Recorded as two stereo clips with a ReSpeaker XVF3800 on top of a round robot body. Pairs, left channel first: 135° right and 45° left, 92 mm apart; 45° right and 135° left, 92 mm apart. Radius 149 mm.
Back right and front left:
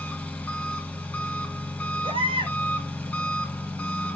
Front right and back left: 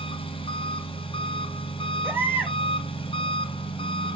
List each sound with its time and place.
0.0 s an engine running: 60° right, 2.5 m
2.0 s a baby crying: 70° left, 2.5 m